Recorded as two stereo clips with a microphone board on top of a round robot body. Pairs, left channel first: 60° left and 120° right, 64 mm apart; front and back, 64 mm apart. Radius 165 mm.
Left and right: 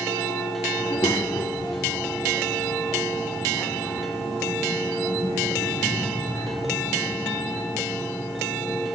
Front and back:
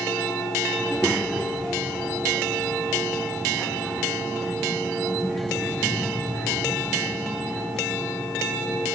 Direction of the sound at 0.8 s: 85° left.